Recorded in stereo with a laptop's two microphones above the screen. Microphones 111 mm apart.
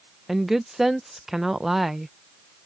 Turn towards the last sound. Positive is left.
turn(degrees=-5)  # may be behind; listen again after turning